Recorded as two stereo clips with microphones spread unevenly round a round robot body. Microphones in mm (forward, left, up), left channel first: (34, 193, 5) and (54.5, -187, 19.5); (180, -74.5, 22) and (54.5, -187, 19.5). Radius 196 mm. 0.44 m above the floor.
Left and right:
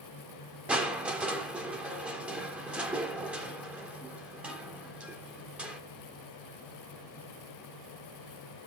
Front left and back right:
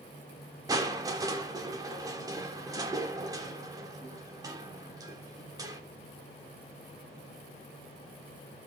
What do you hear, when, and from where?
0.7 s crushing: 175° right, 1.3 m